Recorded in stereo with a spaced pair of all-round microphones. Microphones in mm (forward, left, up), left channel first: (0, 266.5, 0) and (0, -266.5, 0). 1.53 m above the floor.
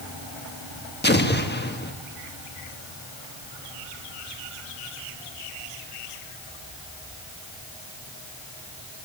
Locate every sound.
1.0 s an explosion: 20° left (ahead or behind), 1.3 m